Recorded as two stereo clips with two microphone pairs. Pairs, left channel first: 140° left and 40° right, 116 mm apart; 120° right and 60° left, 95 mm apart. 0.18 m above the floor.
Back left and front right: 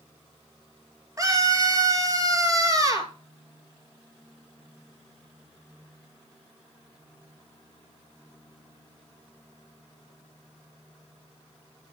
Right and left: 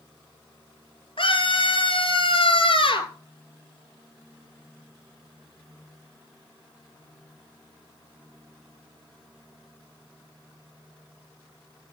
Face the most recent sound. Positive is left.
turn(degrees=-100)